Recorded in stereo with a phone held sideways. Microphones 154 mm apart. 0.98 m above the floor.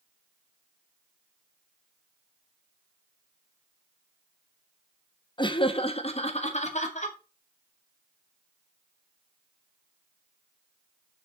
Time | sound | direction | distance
5.4 | laughter | 30° left (ahead or behind) | 1.0 m